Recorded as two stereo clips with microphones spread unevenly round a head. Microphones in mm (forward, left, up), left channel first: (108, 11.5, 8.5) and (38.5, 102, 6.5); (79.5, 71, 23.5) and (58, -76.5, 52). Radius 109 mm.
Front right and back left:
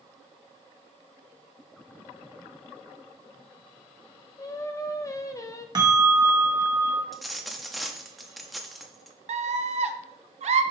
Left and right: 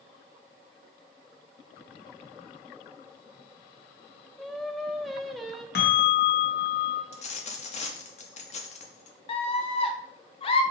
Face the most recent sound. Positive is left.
turn(degrees=125)